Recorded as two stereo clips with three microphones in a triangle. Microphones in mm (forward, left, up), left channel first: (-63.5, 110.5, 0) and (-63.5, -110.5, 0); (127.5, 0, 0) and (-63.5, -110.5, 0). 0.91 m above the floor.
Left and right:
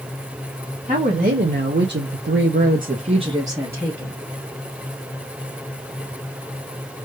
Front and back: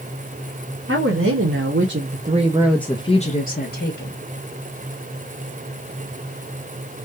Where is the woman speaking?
145° right, 1.4 m; by 4.2 s 5° right, 1.3 m.